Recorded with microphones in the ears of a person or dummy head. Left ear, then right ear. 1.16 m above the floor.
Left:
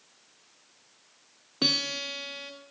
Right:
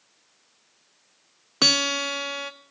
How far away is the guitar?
About 0.5 m.